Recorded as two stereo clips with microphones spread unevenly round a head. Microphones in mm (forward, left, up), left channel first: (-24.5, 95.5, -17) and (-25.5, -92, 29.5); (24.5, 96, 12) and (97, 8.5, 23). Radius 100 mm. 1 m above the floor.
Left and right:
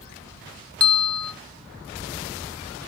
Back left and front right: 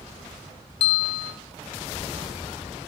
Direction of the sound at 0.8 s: Straight behind.